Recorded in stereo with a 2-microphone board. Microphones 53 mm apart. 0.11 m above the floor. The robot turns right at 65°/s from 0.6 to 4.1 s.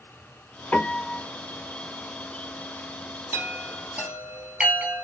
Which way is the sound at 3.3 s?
55° right (ahead or behind).